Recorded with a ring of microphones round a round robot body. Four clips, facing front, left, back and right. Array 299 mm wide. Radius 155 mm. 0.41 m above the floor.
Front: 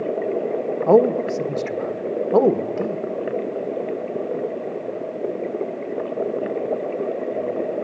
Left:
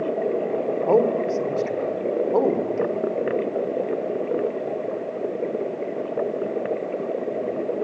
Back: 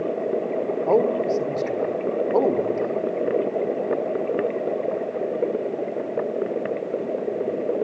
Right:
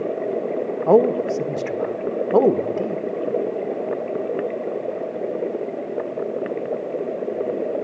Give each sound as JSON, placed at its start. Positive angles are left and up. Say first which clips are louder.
{"t": 0.9, "sound": "a man speaking", "louder": "right 4 dB, front 5 dB", "azimuth_deg": -50, "distance_m": 1.5}